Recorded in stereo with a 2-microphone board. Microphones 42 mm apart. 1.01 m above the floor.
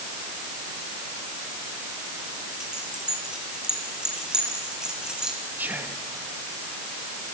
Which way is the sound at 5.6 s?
55° right (ahead or behind).